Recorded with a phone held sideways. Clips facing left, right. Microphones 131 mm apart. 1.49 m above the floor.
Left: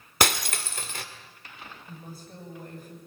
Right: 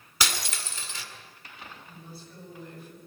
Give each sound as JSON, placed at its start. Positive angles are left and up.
{"t": 0.2, "sound": "breaking glass", "side_deg": 55, "distance_m": 2.0}
{"t": 1.9, "sound": "a woman speaking", "side_deg": 45, "distance_m": 8.5}